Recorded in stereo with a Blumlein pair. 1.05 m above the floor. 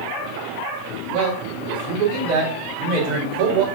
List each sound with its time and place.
1.1 s a man speaking: 40° right, 3.5 m